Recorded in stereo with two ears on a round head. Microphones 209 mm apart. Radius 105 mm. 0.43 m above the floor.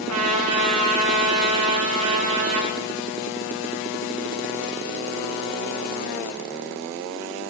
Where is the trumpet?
70° right (ahead or behind), 8.5 m.